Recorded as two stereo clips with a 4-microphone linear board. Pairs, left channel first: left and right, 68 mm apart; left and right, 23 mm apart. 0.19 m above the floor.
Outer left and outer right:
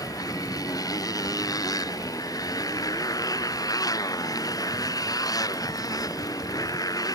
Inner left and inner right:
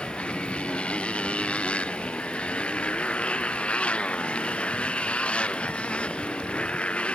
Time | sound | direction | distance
0.0 | a motorcycle | 65° left (ahead or behind) | ?